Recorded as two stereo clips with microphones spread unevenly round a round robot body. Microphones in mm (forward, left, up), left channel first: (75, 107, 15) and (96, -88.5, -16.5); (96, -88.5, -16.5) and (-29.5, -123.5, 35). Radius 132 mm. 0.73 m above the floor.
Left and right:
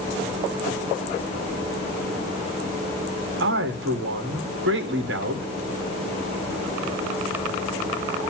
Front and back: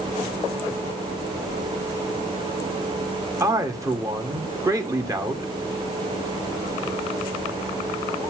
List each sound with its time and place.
3.4 s a man speaking: 90° right, 2 m